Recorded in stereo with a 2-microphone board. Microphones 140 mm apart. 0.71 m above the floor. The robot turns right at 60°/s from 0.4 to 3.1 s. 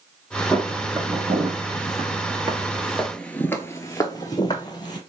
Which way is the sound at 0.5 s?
Centre (ahead or behind).